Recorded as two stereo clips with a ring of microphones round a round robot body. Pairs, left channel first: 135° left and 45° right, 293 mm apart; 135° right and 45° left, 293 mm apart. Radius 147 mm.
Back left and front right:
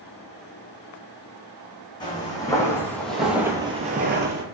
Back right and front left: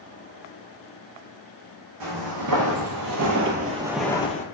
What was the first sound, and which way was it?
Footsteps, 60° left.